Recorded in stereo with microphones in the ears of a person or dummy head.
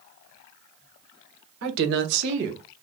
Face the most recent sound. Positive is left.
turn(degrees=-60)  # may be behind; listen again after turning